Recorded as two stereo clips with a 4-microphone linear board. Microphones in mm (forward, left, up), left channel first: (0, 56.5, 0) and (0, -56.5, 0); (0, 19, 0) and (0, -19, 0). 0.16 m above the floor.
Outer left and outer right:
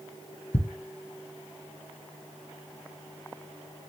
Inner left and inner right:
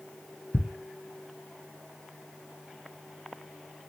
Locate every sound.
0.5 s ticking: 70° left (ahead or behind), 1.2 m